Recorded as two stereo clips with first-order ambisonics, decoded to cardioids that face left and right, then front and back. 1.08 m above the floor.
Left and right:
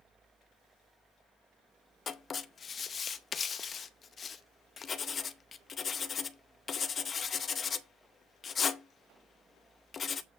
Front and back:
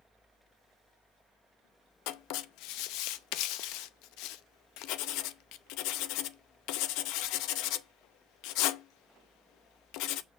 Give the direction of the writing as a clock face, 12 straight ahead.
11 o'clock.